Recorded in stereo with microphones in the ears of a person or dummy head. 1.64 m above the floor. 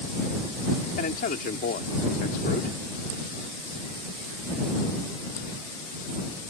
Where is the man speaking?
50° left (ahead or behind).